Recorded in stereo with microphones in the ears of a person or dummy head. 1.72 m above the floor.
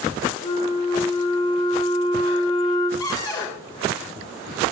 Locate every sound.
0.4 s a flute: 30° left (ahead or behind), 2 m
3.0 s a cupboard door: 20° left (ahead or behind), 1.8 m